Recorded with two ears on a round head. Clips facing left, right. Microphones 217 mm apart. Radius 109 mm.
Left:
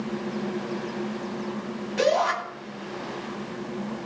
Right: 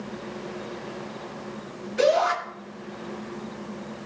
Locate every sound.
2.0 s a shout: 75° left (ahead or behind), 9 m